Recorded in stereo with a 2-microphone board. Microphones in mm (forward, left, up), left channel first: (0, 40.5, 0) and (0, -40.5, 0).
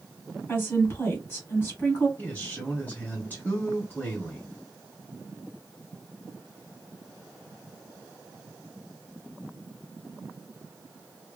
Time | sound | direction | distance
0.5 | a woman speaking | 30° left (ahead or behind) | 1.7 m
2.2 | a man speaking | 20° left (ahead or behind) | 1.9 m